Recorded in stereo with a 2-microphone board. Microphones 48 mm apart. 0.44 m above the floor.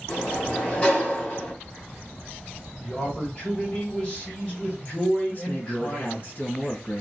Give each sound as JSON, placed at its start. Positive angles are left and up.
{"t": 0.1, "sound": "a sliding door", "side_deg": 25, "distance_m": 2.5}
{"t": 2.8, "sound": "a man speaking", "side_deg": 25, "distance_m": 2.0}
{"t": 5.3, "sound": "a man speaking", "side_deg": 45, "distance_m": 2.5}